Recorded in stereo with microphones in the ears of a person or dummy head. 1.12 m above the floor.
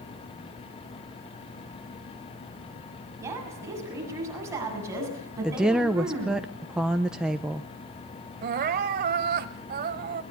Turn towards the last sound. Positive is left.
turn(degrees=-50)  # may be behind; listen again after turning